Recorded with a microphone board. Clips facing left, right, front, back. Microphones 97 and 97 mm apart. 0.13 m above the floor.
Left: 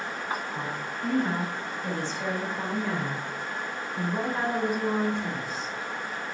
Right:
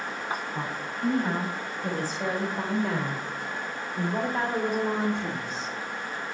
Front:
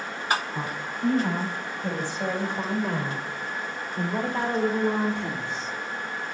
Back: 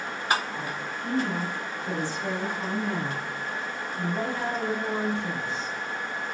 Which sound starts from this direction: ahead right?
A woman speaking, at 0.6 s.